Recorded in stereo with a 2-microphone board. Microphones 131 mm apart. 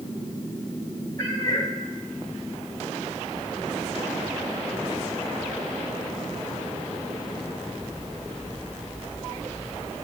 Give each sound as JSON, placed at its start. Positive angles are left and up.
{"t": 1.2, "sound": "a cat meowing", "side_deg": 25, "distance_m": 5.0}